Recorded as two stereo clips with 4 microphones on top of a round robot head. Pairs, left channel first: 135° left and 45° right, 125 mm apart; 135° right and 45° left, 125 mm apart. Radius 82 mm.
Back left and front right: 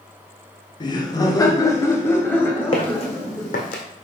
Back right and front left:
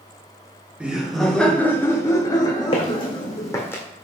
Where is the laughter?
120° left, 1.1 m; by 3.6 s 140° right, 1.4 m.